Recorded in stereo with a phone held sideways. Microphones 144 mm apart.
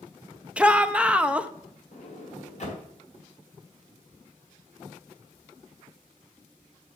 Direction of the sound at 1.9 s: 55° left (ahead or behind).